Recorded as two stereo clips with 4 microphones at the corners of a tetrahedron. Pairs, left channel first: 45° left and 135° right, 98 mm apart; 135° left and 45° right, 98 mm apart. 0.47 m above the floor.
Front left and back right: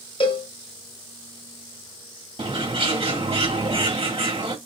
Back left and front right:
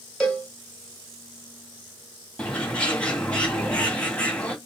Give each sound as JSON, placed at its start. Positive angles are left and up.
{"t": 0.2, "sound": "a cowbell", "azimuth_deg": 50, "distance_m": 2.0}
{"t": 2.4, "sound": "a bird", "azimuth_deg": -150, "distance_m": 1.9}